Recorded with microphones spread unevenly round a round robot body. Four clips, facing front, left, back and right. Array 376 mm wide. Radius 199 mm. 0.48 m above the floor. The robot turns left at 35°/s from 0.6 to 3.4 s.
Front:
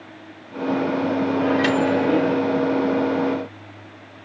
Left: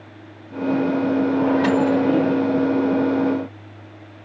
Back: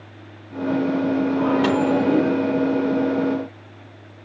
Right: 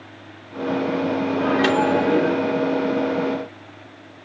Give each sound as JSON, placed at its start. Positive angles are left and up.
{"t": 1.4, "sound": "a microwave", "azimuth_deg": -145, "distance_m": 5.5}